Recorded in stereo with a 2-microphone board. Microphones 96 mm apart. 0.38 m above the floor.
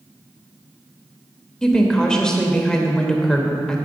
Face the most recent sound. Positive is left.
turn(degrees=10)  # may be behind; listen again after turning